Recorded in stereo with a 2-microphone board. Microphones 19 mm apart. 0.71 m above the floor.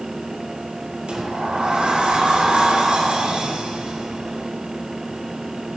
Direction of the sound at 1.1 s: 75° right (ahead or behind).